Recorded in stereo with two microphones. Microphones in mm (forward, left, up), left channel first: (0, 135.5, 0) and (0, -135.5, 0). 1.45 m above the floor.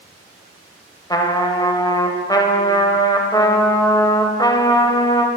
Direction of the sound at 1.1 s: 15° left (ahead or behind).